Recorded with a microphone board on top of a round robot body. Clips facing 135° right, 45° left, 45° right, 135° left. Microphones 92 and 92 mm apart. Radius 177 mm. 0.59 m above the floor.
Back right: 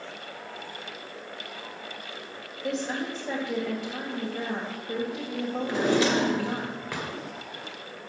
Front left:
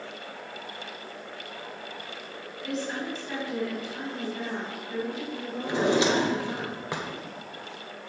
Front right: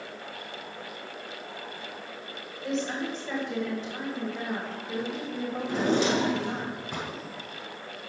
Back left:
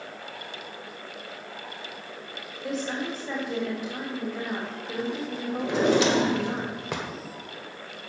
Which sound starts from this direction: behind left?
A drawer, at 5.6 s.